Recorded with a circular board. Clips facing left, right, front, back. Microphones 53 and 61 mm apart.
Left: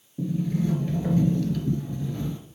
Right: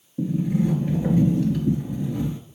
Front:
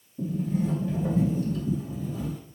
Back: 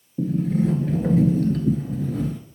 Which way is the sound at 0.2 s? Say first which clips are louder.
Right 4 dB, back 6 dB; 165° right.